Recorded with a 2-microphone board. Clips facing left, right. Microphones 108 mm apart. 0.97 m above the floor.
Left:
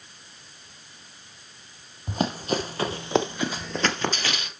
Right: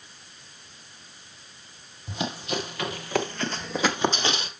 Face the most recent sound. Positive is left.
turn(degrees=-35)  # may be behind; listen again after turning